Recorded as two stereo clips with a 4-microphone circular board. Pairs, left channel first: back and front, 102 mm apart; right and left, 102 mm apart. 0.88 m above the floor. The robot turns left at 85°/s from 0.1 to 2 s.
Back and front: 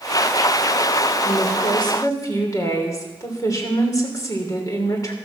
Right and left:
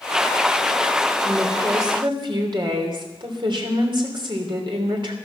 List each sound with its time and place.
1.2 s a woman speaking: 170° right, 3 m; by 5.2 s 125° left, 3 m